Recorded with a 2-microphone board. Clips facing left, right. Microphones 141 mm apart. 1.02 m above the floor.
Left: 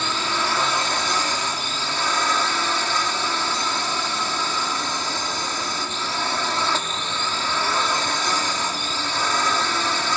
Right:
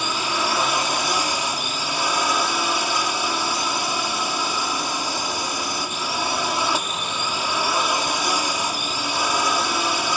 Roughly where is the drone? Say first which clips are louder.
Right 1 dB; centre.